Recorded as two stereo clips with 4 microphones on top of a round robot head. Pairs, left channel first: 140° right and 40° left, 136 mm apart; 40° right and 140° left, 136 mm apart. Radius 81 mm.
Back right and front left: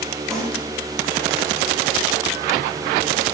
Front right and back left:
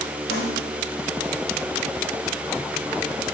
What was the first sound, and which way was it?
A snare drum, 55° right.